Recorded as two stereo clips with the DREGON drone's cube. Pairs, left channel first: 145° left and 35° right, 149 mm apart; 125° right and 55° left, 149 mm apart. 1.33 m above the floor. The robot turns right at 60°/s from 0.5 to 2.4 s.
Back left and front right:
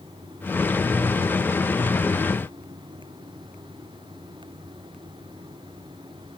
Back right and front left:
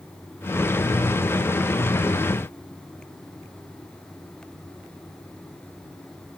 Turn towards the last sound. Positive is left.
No sound to turn to.